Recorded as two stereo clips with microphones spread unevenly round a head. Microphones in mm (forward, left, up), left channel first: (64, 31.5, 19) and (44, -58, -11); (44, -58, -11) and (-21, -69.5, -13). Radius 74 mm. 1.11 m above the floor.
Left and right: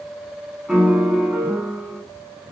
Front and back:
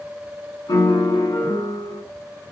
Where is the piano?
10° right, 9 m.